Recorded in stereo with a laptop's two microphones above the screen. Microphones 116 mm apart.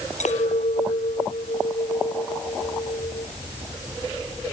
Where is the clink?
85° left.